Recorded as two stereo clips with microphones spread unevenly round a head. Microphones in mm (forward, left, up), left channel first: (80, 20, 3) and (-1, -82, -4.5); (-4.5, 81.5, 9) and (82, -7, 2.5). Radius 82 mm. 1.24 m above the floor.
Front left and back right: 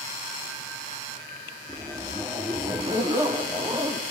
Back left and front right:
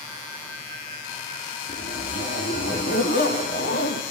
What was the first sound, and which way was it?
A zipper, 160° left.